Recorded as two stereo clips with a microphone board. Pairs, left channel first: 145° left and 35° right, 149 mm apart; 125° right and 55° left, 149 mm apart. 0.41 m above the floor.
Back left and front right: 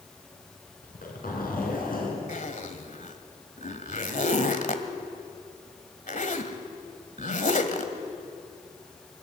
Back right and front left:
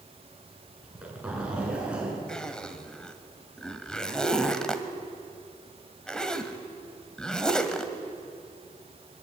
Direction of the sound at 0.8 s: 140° left.